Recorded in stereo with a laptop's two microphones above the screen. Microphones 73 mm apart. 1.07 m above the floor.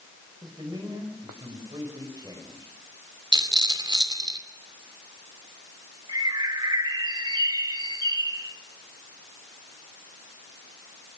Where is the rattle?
85° right, 2.5 m.